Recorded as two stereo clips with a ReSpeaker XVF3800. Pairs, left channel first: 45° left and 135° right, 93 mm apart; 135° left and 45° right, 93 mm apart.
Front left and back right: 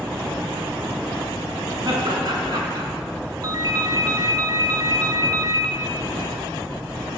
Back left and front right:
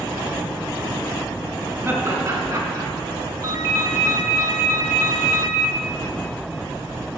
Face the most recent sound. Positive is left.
turn(degrees=-90)